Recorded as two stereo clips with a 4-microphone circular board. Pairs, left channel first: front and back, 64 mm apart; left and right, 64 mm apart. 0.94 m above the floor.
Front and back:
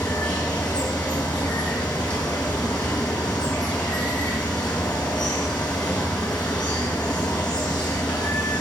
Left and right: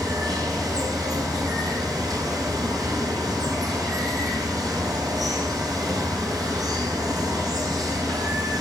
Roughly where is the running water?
Right.